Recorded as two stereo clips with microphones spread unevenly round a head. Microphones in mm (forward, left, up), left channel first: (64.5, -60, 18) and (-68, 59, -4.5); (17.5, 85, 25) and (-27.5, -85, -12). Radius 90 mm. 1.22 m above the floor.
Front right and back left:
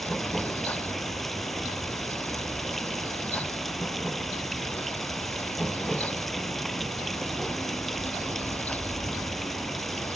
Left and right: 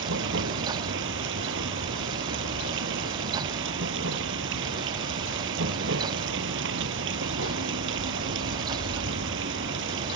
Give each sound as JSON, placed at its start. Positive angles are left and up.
{"t": 0.0, "sound": "running water", "azimuth_deg": -130}